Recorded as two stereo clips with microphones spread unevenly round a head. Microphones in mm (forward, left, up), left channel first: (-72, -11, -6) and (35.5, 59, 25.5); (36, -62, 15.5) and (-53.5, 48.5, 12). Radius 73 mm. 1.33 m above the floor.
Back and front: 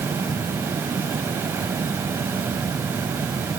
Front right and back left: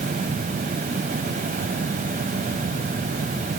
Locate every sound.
Only background noise.